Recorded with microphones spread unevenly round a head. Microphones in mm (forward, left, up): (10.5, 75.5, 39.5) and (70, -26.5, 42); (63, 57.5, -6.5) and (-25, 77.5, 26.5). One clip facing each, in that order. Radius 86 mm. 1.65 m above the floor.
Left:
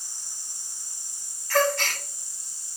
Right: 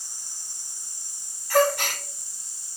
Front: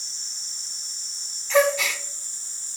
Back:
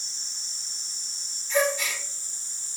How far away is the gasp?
About 1.0 m.